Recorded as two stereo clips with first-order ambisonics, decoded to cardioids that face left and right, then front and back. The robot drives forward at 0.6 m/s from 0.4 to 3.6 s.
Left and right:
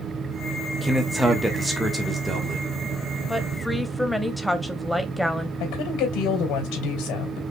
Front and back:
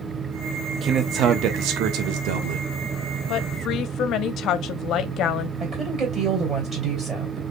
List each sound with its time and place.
0.8 s a man speaking: 155° right, 0.7 m; by 2.7 s 175° right, 1.5 m
3.3 s a woman speaking: straight ahead, 0.7 m
5.6 s a woman speaking: 120° left, 3 m